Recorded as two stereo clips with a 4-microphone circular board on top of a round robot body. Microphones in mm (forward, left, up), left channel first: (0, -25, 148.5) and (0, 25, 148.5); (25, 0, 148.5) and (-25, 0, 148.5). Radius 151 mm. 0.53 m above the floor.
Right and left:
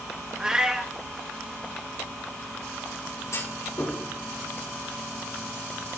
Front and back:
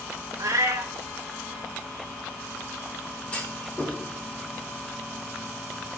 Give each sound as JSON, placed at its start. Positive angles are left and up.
{"t": 0.4, "sound": "a cat meowing", "azimuth_deg": 165, "distance_m": 1.2}
{"t": 3.3, "sound": "a clunk", "azimuth_deg": -70, "distance_m": 4.5}